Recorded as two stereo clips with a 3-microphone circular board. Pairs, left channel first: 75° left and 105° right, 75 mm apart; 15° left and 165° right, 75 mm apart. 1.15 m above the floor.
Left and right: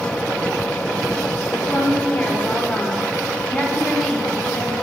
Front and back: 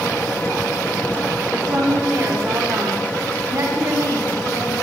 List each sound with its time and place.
1.5 s a woman speaking: 135° left, 4 m; by 4.8 s 150° left, 7 m